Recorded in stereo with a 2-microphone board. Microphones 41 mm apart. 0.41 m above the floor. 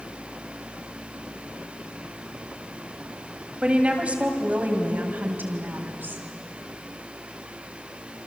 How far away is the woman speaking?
About 3 m.